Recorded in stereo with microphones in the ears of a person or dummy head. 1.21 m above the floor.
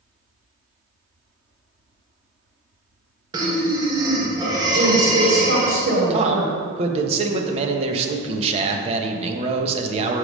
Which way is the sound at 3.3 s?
25° right (ahead or behind).